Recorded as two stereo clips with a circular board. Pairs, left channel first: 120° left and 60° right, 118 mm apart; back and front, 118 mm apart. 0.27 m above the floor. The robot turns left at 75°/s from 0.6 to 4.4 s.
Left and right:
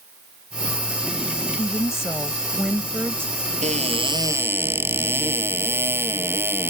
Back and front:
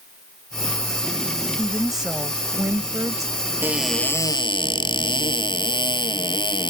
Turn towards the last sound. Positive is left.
turn(degrees=-130)